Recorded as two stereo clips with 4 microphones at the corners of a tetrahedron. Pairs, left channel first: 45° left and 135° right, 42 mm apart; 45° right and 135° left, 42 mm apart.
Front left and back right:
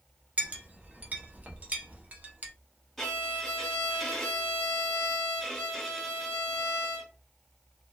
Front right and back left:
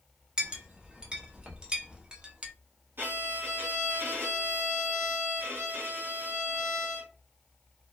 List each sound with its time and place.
0.4 s a clink: 165° right, 0.8 m
3.0 s a violin: 130° left, 1.9 m